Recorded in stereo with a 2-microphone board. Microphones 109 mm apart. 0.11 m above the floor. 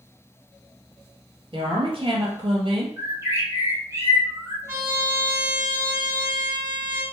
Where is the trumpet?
25° right (ahead or behind), 1.9 m.